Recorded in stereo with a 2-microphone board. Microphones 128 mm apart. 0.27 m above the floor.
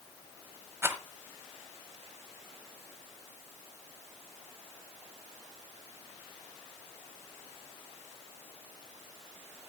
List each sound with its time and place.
0.8 s a rattle: 20° right (ahead or behind), 1.3 m